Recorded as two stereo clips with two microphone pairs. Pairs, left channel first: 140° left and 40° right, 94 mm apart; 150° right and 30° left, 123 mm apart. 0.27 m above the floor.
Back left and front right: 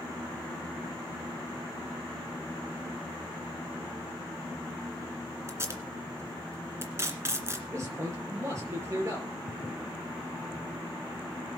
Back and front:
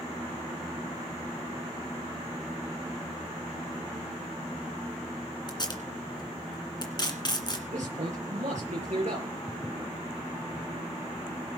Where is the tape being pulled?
100° right, 2 m.